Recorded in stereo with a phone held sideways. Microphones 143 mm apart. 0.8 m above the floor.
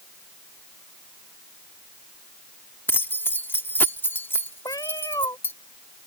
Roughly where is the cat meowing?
Left.